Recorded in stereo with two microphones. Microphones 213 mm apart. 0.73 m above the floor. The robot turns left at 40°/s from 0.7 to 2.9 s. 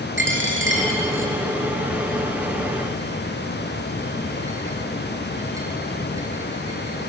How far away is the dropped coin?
About 1.8 m.